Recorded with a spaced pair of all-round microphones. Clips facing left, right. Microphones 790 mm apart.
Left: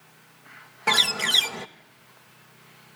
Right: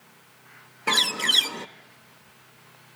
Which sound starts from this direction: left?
A bird, at 0.9 s.